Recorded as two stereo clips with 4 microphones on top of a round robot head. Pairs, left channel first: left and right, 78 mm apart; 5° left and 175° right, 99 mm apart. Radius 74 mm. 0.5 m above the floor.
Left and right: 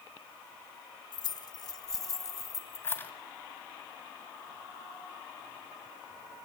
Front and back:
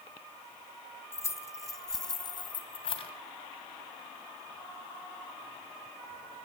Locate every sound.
1.1 s keys jangling: 65° left, 3.5 m; by 3.1 s 25° left, 3 m